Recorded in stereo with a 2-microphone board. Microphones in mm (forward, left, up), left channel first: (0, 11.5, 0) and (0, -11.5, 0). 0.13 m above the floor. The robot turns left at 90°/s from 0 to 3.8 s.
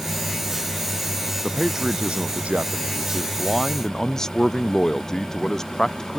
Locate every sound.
1.4 s a man speaking: 10° left; by 6.2 s 155° left